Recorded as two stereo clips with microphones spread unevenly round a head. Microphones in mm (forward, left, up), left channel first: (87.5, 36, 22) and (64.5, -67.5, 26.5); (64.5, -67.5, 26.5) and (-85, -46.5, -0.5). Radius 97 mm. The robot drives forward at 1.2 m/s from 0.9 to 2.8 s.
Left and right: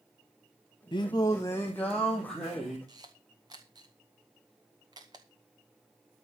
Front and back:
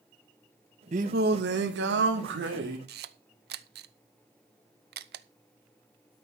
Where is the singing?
125° left, 0.9 m; by 2.8 s 170° left, 2.5 m.